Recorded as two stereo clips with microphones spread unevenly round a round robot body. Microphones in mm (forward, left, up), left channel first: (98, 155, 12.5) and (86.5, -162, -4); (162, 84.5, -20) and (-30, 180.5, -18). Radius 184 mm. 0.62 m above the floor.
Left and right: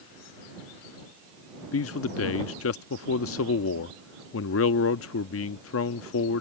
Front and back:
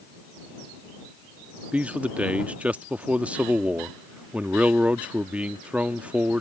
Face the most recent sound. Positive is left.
turn(degrees=70)